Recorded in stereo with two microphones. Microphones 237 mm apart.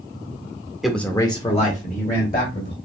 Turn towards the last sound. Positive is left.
turn(degrees=40)  # may be behind; listen again after turning